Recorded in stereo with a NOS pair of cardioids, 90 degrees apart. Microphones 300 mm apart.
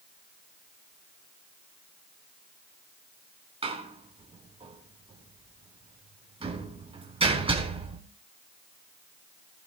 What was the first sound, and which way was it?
A door slam, 20° right.